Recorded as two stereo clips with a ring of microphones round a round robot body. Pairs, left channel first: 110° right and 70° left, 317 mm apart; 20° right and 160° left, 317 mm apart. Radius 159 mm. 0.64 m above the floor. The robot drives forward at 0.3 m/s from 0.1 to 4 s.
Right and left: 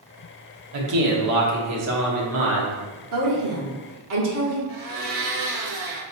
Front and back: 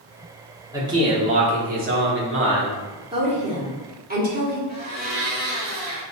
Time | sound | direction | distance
0.7 | a man speaking | 80° left | 1.1 m
3.1 | a woman speaking | 85° left | 1.5 m
4.7 | a blender | 90° left | 1.3 m